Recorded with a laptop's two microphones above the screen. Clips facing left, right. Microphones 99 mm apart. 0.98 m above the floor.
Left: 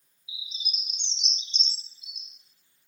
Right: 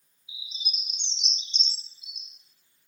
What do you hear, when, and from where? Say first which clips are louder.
0.3 s a bird: even; 45° right (ahead or behind), 1.3 m